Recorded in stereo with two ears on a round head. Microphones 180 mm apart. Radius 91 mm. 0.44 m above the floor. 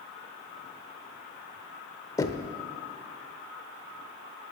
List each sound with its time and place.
2.2 s knocking: 20° left (ahead or behind), 0.9 m